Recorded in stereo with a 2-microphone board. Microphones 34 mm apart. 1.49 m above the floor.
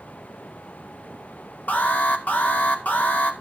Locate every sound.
1.7 s an alarm: 55° left (ahead or behind), 2 m